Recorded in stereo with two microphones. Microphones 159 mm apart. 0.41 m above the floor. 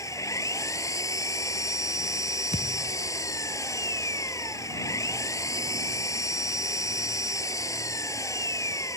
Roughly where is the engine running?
Left.